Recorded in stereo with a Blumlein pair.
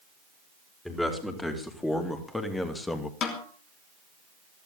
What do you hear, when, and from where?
0.8 s a man speaking: 10° left, 4.5 m
3.2 s a snare drum: 30° left, 3 m